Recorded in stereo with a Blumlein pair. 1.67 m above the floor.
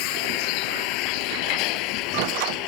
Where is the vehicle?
45° left; by 2.7 s 40° left.